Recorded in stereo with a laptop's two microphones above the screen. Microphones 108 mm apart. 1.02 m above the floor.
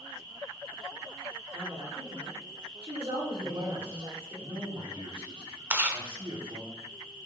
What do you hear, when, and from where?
1.5 s a woman speaking: 60° right (ahead or behind), 3 m
3.4 s a man speaking: 60° right (ahead or behind), 3.5 m
5.7 s chewing: 20° right (ahead or behind), 0.7 m